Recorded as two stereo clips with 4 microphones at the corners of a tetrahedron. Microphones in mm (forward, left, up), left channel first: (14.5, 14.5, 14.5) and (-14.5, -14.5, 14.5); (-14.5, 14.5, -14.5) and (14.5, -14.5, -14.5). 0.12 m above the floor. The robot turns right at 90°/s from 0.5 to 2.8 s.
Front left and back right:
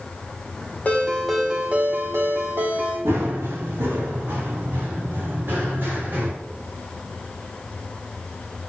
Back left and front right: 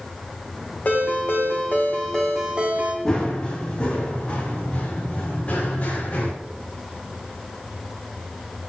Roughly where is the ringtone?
Left.